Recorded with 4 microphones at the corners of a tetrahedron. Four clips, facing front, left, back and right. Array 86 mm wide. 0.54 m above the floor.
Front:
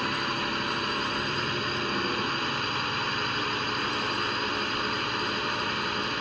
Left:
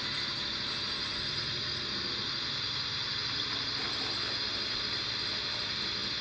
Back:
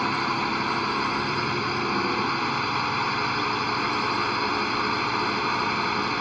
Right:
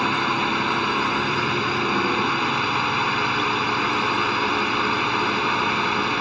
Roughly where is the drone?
Right.